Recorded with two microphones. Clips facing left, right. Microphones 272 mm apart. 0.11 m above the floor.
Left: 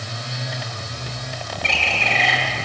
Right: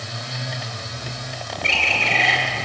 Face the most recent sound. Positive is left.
turn(degrees=-35)  # may be behind; listen again after turning